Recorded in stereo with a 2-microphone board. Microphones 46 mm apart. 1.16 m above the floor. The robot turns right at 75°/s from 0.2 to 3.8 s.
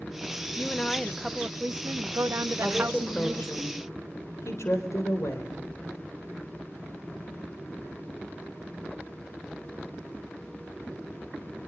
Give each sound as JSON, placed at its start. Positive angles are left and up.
{"t": 0.6, "sound": "a woman speaking", "azimuth_deg": 140, "distance_m": 0.6}
{"t": 2.6, "sound": "a woman speaking", "azimuth_deg": -15, "distance_m": 4.0}